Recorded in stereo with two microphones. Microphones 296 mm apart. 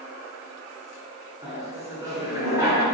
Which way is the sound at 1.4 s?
20° right (ahead or behind).